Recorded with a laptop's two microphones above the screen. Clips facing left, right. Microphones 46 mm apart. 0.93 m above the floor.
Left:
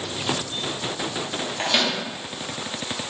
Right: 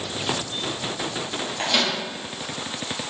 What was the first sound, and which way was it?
A microwave, 10° left (ahead or behind).